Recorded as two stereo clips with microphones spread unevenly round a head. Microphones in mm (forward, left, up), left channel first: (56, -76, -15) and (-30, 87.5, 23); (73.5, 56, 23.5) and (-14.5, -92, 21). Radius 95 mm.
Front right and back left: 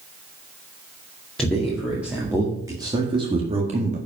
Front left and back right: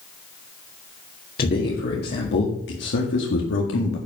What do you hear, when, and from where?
1.4 s a man speaking: 25° left, 2.0 m; by 4.0 s 65° left, 1.8 m